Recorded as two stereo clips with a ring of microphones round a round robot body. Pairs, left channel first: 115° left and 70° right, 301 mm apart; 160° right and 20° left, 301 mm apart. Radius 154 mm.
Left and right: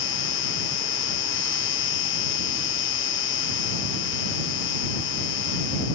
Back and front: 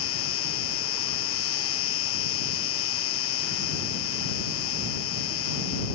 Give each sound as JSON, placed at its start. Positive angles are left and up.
{"t": 0.0, "sound": "an insect", "azimuth_deg": 160}